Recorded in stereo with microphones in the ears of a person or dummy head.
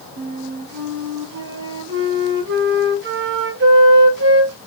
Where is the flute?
60° right (ahead or behind), 1.7 m.